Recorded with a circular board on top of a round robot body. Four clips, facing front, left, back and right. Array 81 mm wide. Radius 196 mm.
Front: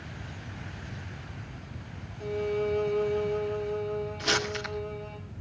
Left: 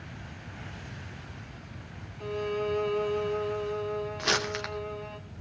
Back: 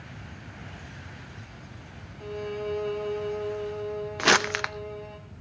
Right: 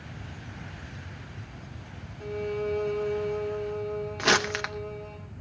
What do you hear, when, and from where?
2.2 s a violin: 125° left, 4.5 m
4.2 s crumpling: 160° right, 0.7 m